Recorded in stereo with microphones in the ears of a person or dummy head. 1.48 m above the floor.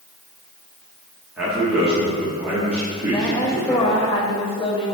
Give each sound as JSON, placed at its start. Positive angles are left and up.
{"t": 1.4, "sound": "a man speaking", "side_deg": -5, "distance_m": 1.6}
{"t": 3.1, "sound": "a woman speaking", "side_deg": 35, "distance_m": 1.1}